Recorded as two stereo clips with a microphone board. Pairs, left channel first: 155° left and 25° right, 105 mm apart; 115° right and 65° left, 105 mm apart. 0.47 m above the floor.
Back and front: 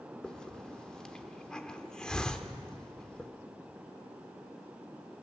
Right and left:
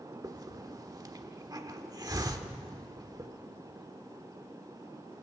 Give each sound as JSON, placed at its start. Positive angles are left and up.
{"t": 0.2, "sound": "a hiss", "azimuth_deg": 80, "distance_m": 1.2}